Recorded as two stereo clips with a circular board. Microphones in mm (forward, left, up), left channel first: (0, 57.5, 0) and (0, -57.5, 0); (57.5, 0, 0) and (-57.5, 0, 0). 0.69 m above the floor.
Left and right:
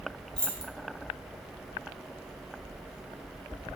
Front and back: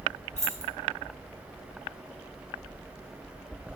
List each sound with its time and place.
0.4 s keys jangling: 5° left, 0.5 m